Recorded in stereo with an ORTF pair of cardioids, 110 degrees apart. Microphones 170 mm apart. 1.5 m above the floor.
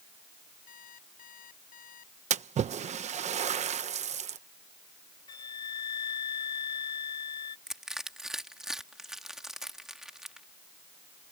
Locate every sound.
0.7 s an alarm clock: 55° left
2.3 s a splash: 45° right
5.3 s a flute: 25° left
7.7 s crushing: 5° right